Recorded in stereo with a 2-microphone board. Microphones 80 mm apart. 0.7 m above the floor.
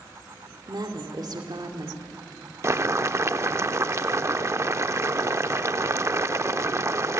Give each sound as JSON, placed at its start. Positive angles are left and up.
{"t": 0.7, "sound": "a woman speaking", "side_deg": -60, "distance_m": 2.0}
{"t": 2.6, "sound": "boiling", "side_deg": -35, "distance_m": 0.5}